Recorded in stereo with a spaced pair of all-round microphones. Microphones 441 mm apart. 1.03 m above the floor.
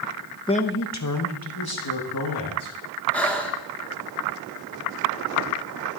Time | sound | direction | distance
0.5 | a man speaking | 10° left (ahead or behind) | 0.5 m
3.1 | breathing | 5° left (ahead or behind) | 1.0 m